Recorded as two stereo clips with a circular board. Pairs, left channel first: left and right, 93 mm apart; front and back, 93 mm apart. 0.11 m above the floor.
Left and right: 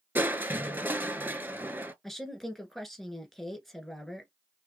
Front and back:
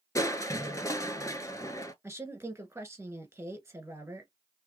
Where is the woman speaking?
175° left, 1.2 m.